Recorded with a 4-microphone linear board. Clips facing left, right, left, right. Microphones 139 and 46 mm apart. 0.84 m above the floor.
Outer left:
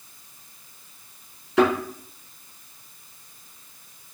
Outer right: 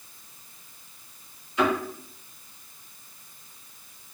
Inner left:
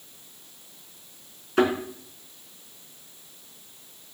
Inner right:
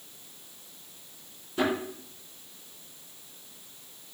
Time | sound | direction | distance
1.6 | a thud | 85° left | 4.5 m